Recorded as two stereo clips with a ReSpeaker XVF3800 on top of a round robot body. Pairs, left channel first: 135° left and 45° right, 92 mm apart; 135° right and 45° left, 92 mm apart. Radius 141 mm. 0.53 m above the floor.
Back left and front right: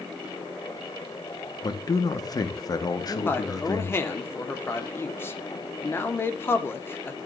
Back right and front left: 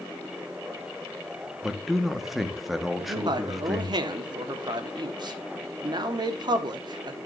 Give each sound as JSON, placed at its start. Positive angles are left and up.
{"t": 1.6, "sound": "a man speaking", "azimuth_deg": 135, "distance_m": 1.3}
{"t": 3.0, "sound": "a man speaking", "azimuth_deg": 75, "distance_m": 1.3}